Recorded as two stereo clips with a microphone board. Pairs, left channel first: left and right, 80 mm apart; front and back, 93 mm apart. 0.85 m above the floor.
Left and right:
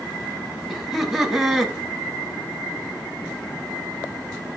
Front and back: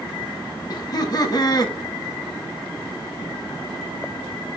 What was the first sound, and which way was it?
Laughter, straight ahead.